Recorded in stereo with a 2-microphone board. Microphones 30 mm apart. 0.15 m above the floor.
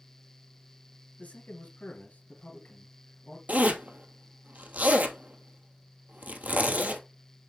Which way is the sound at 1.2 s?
60° left (ahead or behind).